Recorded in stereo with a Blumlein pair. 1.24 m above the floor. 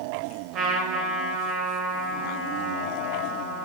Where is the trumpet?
30° right, 1.7 m.